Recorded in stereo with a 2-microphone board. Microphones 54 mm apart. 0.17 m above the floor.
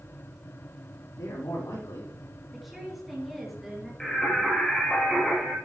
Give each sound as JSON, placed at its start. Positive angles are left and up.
{"t": 1.2, "sound": "a man speaking", "side_deg": 80, "distance_m": 7.0}
{"t": 2.5, "sound": "a woman speaking", "side_deg": -5, "distance_m": 3.5}
{"t": 4.0, "sound": "singing", "side_deg": 10, "distance_m": 4.0}